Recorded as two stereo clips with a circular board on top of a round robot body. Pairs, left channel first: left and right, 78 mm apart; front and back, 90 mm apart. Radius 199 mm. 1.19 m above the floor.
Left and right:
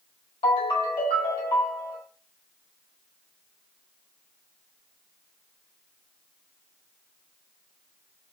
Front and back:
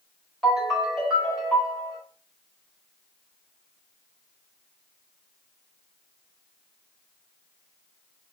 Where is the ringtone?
90° left, 2.5 m.